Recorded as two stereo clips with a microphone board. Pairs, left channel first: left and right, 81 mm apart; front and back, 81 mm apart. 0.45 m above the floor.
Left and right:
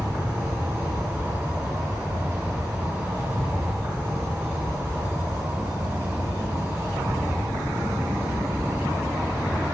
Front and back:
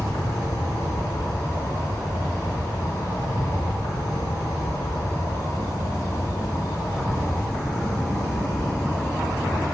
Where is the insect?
30° right, 4.5 m.